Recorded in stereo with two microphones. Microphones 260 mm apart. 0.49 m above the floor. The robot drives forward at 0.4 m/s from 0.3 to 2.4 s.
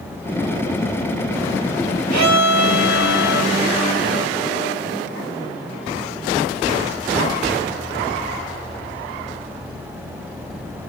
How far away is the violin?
About 0.9 m.